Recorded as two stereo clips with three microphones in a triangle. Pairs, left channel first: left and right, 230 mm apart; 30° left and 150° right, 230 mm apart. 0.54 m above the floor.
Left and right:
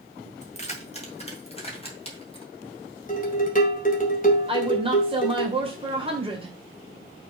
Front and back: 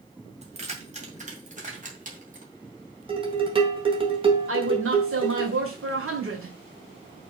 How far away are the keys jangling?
About 2.0 m.